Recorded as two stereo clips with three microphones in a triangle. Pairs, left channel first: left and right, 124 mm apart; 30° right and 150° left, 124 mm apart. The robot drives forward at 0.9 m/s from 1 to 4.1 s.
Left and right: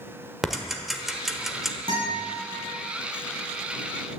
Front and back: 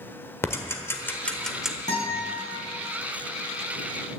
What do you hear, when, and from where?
0.4 s ticking: 5° right, 1.3 m; by 1.8 s 170° right, 1.2 m
1.9 s a guitar: 45° right, 7 m